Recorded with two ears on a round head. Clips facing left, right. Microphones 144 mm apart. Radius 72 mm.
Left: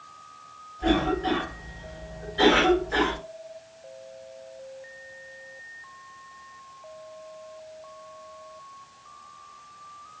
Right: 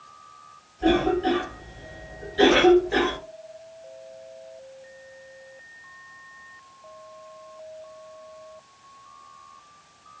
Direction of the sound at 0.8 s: 35° right (ahead or behind).